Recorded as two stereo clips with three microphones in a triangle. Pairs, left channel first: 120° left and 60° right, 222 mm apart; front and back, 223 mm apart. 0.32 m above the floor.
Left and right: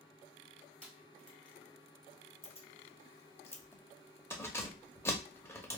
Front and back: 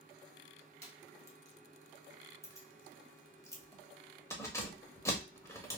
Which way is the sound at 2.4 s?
55° left.